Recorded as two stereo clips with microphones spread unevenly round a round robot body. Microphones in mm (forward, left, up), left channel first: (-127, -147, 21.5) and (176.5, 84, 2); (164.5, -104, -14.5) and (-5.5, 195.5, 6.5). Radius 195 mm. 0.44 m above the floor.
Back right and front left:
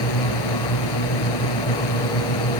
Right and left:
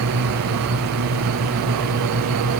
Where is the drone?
175° right; by 2.6 s 170° right.